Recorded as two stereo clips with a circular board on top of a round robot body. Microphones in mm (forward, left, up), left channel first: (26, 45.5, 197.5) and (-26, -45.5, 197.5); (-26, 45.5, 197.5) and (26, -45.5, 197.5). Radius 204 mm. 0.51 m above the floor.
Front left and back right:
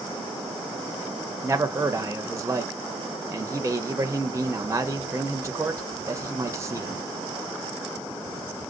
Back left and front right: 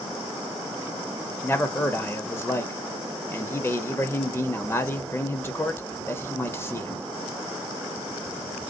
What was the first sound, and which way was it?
A man speaking, straight behind.